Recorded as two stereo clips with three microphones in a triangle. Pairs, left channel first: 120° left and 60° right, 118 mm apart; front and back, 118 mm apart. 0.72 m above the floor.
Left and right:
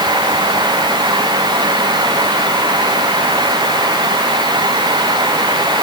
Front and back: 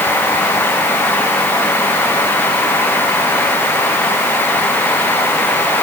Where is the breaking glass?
No breaking glass in this recording.